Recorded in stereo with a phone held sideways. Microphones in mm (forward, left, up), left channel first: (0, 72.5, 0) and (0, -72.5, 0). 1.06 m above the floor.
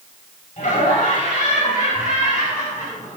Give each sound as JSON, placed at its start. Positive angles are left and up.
{"t": 0.6, "sound": "laughter", "side_deg": 70, "distance_m": 6.5}